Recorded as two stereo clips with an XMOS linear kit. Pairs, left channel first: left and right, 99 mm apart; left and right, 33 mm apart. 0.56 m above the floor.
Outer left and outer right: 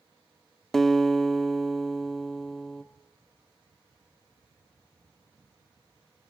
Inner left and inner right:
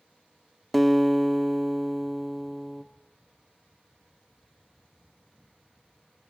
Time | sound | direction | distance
0.7 | a guitar | 5° left (ahead or behind) | 1.0 m